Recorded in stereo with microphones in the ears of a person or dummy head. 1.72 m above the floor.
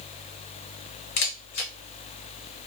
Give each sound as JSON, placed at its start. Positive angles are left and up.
{"t": 1.2, "sound": "a camera shutter", "side_deg": 40, "distance_m": 0.7}